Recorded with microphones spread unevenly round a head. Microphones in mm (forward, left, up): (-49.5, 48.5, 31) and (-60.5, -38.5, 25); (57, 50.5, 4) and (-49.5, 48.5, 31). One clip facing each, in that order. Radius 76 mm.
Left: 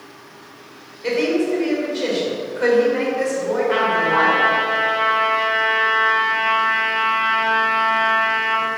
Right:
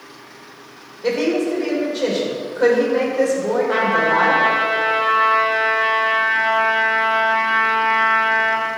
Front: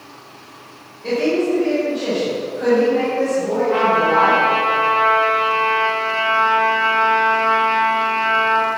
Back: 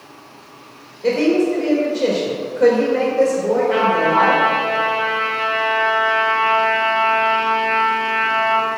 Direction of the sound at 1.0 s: 160° right.